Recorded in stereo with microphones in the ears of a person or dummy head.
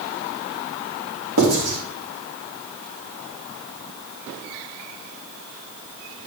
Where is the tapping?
I don't hear tapping.